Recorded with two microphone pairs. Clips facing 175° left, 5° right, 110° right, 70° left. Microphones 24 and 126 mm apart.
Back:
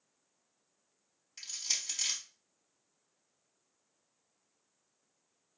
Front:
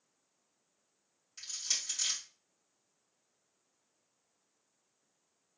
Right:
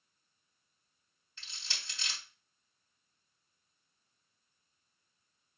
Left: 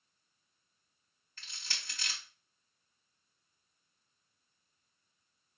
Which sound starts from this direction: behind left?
Crushing, at 1.4 s.